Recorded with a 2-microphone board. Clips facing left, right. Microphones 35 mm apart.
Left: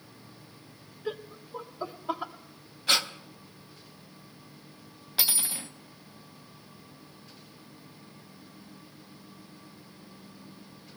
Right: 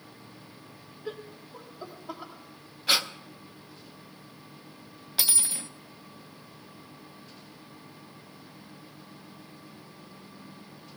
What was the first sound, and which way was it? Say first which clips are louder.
Laughter: left 3 dB; 15° left (ahead or behind).